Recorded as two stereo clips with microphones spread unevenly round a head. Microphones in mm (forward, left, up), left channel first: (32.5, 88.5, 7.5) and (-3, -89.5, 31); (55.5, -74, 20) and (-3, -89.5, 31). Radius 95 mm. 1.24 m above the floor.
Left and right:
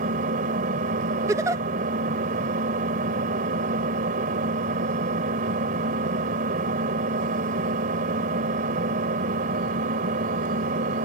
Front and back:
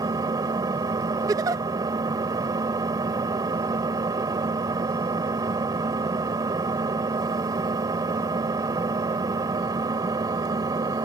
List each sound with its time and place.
0.0 s an engine running: 150° right
1.3 s a giggle: 170° right